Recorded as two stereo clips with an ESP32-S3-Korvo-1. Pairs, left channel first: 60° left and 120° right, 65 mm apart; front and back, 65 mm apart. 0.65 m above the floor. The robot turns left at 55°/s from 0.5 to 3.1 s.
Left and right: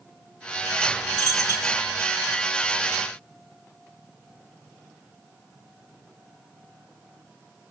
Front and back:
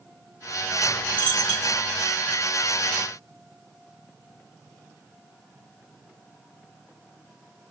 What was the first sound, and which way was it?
A dropped coin, 65° right.